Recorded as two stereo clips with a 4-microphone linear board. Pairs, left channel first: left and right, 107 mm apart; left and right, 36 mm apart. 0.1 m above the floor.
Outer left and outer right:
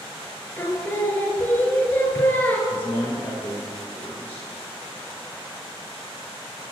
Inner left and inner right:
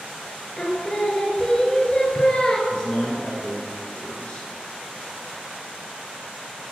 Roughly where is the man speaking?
Left.